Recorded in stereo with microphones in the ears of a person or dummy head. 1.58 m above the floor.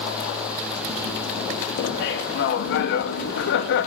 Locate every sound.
1.8 s laughter: 55° left (ahead or behind), 2 m